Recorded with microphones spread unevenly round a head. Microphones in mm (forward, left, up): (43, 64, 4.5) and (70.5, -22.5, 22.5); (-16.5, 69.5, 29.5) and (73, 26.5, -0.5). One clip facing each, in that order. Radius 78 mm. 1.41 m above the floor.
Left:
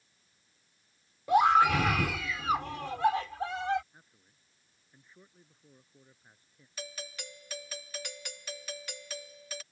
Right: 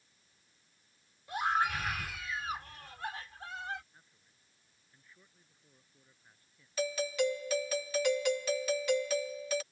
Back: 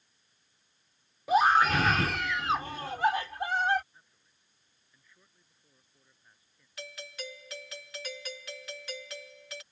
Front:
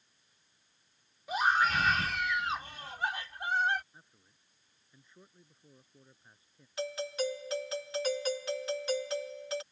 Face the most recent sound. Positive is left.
turn(degrees=-95)